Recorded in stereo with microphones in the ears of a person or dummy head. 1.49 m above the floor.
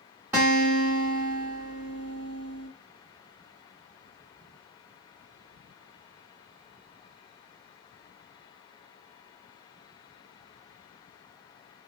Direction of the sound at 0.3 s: 10° right (ahead or behind).